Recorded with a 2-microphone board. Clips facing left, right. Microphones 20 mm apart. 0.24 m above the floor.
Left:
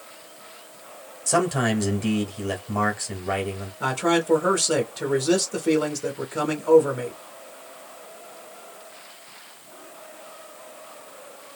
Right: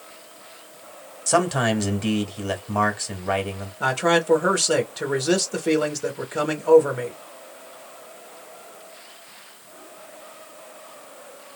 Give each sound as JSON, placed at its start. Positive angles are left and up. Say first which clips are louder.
{"t": 1.3, "sound": "a man speaking", "louder": "right 2 dB", "side_deg": -20, "distance_m": 1.2}
{"t": 3.8, "sound": "a man speaking", "louder": "right 2 dB", "side_deg": -15, "distance_m": 0.9}